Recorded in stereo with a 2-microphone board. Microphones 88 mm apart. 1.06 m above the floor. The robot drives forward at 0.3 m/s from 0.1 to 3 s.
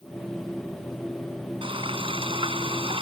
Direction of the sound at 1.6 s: 80° right.